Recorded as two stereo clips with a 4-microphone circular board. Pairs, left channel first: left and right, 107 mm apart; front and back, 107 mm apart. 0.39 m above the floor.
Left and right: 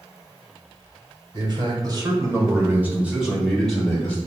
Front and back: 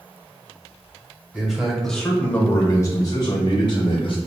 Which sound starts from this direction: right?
A man speaking, at 1.3 s.